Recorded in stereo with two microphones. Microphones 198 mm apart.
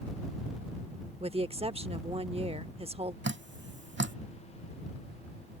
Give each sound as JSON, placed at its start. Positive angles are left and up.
{"t": 1.2, "sound": "a woman speaking", "side_deg": -30}
{"t": 3.2, "sound": "dripping", "side_deg": -65}